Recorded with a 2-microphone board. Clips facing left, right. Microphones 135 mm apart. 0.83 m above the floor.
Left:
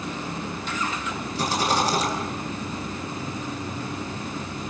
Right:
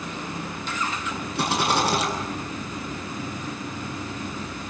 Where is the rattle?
65° right (ahead or behind), 8.5 m.